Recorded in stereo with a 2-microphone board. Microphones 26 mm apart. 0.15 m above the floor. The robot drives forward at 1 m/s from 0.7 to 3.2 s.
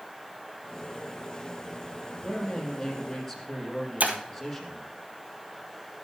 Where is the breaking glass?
75° right (ahead or behind), 1.6 m.